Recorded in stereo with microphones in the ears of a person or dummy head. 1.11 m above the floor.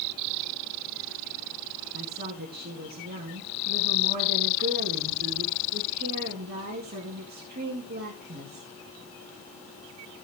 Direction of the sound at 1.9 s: 45° right (ahead or behind).